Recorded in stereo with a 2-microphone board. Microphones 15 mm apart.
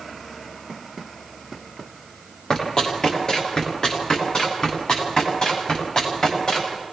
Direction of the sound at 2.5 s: 55° left (ahead or behind).